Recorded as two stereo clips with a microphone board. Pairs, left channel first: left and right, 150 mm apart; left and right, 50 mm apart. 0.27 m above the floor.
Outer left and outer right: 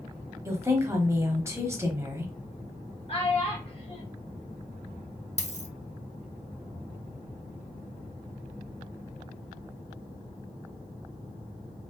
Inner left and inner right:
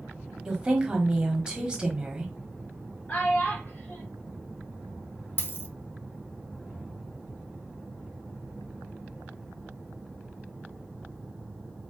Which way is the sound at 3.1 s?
40° left (ahead or behind).